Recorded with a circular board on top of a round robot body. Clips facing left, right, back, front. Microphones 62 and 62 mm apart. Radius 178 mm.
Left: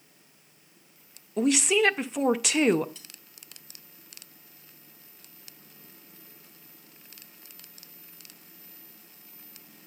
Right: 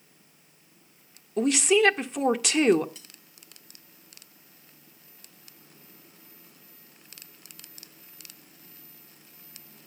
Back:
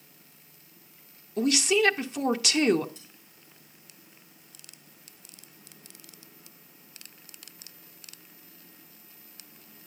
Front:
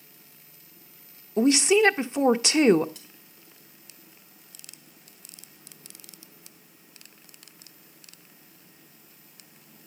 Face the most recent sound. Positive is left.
turn(degrees=-10)